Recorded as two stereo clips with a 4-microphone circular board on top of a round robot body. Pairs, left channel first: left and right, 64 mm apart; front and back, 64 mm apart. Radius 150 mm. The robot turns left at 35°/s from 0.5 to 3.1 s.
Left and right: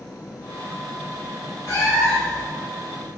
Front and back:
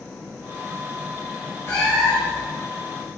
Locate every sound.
1.7 s a cat meowing: 50° left, 0.8 m; by 2.5 s 25° left, 0.8 m